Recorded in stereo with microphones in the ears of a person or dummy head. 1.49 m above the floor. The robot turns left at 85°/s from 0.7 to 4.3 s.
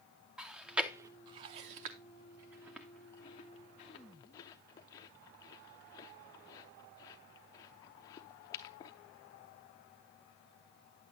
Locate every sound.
0.4 s chewing: centre (ahead or behind), 0.6 m; by 8.9 s 25° left (ahead or behind), 0.6 m